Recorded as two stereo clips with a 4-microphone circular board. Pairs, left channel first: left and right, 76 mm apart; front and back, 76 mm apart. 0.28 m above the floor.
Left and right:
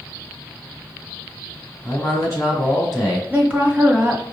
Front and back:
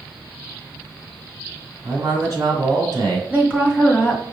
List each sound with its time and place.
1.8 s a man speaking: 145° left, 2.5 m
3.3 s a woman speaking: 135° right, 1.5 m